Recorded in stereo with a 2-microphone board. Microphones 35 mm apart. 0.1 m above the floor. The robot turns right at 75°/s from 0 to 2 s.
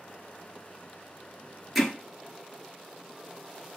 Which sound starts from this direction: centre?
Hammering, at 1.8 s.